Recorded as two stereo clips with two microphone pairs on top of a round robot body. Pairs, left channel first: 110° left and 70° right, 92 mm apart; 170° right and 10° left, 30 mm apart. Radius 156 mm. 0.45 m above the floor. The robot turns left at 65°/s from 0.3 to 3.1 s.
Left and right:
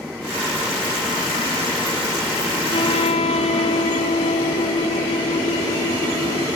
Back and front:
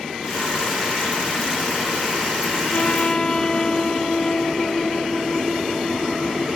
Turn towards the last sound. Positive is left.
turn(degrees=125)